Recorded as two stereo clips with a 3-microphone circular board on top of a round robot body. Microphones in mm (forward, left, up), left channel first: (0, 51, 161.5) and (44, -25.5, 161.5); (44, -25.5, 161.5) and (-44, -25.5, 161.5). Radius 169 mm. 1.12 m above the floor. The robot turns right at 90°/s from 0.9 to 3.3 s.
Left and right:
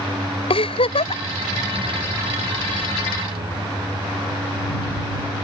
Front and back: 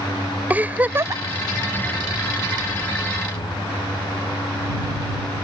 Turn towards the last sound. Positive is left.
turn(degrees=-40)